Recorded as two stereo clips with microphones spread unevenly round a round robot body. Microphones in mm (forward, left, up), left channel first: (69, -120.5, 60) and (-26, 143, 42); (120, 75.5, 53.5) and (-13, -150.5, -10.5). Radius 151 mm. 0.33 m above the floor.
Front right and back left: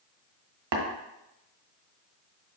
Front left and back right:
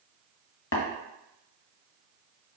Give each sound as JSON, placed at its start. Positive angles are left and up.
{"t": 0.7, "sound": "tapping", "azimuth_deg": 115, "distance_m": 1.2}